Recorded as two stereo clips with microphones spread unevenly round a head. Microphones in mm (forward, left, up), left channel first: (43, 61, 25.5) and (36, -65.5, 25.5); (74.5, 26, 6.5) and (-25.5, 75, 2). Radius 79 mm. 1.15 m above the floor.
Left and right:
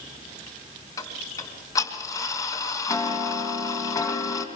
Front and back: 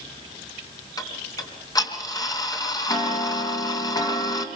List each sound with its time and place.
1.0 s ticking: 25° left, 4 m